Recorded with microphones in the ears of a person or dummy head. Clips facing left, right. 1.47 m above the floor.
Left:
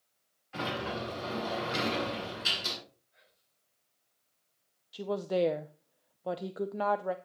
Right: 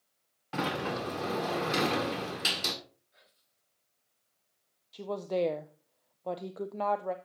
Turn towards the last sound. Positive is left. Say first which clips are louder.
# left 1 dB
turn(degrees=5)  # may be behind; listen again after turning